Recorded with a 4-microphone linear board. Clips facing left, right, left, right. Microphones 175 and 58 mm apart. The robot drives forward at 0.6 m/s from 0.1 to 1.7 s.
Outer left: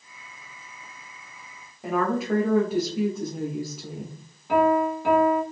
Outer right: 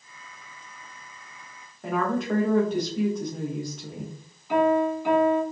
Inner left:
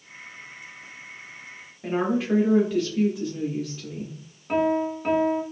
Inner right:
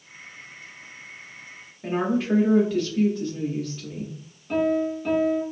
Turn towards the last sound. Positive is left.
turn(degrees=60)  # may be behind; listen again after turning